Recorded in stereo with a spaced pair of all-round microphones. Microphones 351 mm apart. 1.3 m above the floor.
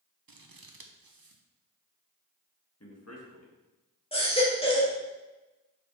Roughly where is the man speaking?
Left.